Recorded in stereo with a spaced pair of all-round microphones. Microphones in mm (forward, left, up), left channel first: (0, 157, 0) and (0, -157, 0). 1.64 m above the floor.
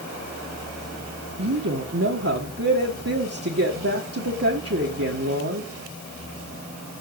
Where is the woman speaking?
50° right (ahead or behind), 1.7 m.